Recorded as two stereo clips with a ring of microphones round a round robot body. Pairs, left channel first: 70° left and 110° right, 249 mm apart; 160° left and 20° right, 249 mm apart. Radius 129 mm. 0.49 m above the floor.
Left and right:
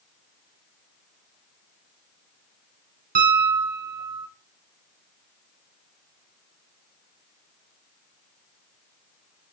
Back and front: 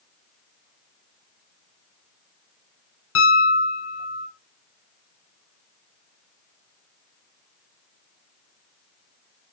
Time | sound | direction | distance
3.1 | a piano | 165° right | 3 m